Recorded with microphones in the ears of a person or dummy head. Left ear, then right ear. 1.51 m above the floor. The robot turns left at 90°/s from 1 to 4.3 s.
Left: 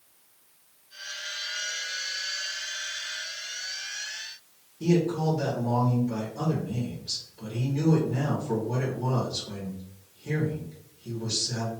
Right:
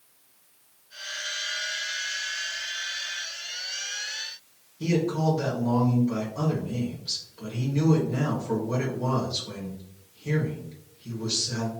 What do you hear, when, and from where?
4.8 s a man speaking: 30° right (ahead or behind), 0.9 m